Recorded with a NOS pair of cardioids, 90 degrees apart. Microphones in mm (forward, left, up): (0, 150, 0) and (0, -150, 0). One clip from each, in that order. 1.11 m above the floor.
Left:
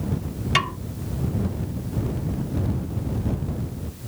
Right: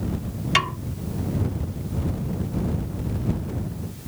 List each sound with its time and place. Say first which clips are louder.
0.6 s a snare drum: right 1 dB; 5° right